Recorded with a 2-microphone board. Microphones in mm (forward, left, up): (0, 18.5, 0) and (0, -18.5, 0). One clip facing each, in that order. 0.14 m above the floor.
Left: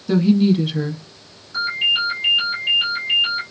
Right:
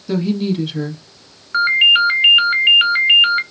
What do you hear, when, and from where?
0.1 s a woman speaking: 10° left (ahead or behind), 1.2 m
1.5 s a ringtone: 50° right (ahead or behind), 1.0 m